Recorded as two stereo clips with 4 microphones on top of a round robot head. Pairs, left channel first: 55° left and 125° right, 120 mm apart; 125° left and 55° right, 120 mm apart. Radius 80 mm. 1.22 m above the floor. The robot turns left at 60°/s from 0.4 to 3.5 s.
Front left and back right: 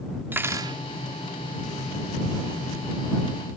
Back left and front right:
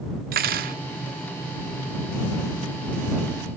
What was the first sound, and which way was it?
Cutlery clinking, 50° right.